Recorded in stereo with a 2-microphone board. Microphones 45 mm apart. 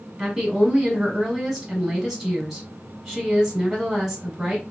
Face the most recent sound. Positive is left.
turn(degrees=-10)  # may be behind; listen again after turning